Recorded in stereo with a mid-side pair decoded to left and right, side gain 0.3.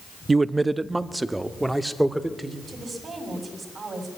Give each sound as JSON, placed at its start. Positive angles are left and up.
{"t": 0.3, "sound": "a man speaking", "azimuth_deg": -35, "distance_m": 0.7}
{"t": 2.7, "sound": "a woman speaking", "azimuth_deg": -55, "distance_m": 6.0}